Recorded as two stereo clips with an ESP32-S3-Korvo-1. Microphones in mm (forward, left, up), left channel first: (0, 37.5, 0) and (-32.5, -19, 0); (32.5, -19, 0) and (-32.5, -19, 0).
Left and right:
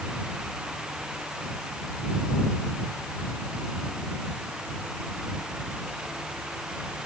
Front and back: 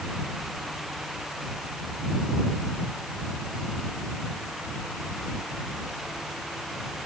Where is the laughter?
No laughter in this recording.